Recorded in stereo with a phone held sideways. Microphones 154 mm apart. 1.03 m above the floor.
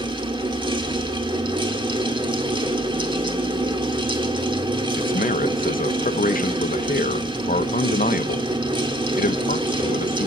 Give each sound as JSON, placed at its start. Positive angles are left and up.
{"t": 0.0, "sound": "a fan", "side_deg": -30, "distance_m": 2.0}
{"t": 5.0, "sound": "a man speaking", "side_deg": 65, "distance_m": 1.0}